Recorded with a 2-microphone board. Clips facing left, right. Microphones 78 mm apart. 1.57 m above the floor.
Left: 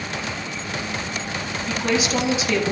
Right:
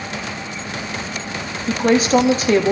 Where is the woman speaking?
45° right (ahead or behind), 2 m.